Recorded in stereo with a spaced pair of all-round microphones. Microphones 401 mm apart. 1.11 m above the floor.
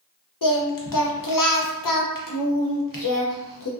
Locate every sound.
0.4 s singing: 55° left (ahead or behind), 0.6 m